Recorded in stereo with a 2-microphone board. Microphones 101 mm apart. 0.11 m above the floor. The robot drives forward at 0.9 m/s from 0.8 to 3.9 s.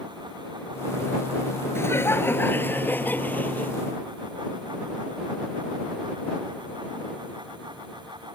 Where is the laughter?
25° left (ahead or behind); by 3.7 s 15° left (ahead or behind).